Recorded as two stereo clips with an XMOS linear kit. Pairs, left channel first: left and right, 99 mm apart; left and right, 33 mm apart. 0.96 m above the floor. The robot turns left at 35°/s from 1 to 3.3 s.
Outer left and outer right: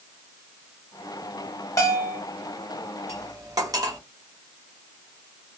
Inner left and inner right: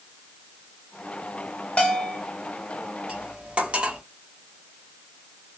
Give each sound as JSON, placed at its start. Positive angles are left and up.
{"t": 1.8, "sound": "a bell", "side_deg": 30, "distance_m": 1.1}
{"t": 3.1, "sound": "cutlery clinking", "side_deg": -30, "distance_m": 0.7}